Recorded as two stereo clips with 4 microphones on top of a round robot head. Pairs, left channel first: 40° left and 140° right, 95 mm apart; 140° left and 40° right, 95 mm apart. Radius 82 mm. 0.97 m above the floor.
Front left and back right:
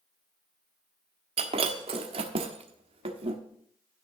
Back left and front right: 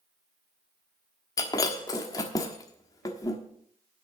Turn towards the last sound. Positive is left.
turn(degrees=-165)